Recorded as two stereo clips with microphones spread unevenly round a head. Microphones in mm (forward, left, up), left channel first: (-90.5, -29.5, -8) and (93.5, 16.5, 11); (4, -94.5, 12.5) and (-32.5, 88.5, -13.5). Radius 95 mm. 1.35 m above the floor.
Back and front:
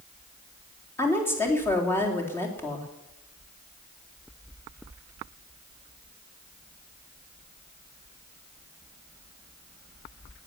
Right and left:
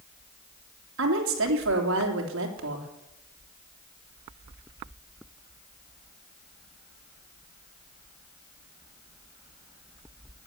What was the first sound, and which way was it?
A woman speaking, 115° left.